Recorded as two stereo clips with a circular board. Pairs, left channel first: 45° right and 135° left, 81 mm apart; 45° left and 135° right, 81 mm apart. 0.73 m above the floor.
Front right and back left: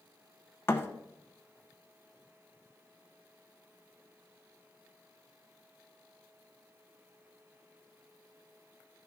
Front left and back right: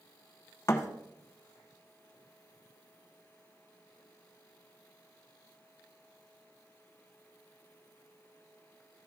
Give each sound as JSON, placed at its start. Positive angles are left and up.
{"t": 0.7, "sound": "a thud", "azimuth_deg": 5, "distance_m": 0.9}